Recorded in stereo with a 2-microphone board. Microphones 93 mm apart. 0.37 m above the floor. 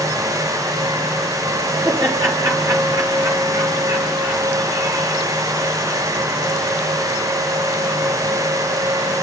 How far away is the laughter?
About 6 m.